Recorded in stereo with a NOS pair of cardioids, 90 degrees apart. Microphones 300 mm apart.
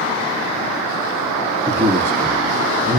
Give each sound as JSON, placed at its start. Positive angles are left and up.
{"t": 1.7, "sound": "a man speaking", "azimuth_deg": -5, "distance_m": 0.8}